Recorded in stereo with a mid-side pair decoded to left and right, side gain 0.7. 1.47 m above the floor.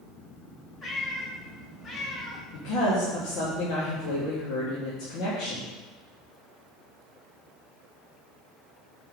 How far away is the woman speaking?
About 2.0 m.